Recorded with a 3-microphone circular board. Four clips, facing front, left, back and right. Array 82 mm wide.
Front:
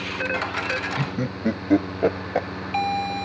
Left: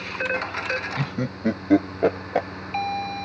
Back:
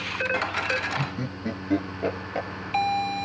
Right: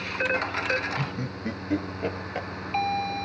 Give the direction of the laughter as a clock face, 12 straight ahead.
10 o'clock.